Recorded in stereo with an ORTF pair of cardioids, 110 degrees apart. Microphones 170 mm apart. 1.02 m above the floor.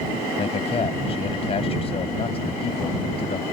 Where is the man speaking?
35° left.